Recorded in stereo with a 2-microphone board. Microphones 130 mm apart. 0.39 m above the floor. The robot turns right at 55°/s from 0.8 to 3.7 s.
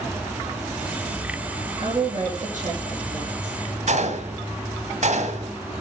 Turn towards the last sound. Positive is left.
turn(degrees=-65)  # may be behind; listen again after turning